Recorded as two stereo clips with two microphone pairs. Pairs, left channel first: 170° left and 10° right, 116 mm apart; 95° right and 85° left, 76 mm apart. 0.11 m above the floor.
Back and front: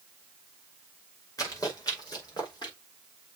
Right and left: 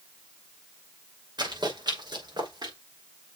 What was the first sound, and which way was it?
Running footsteps, 110° left.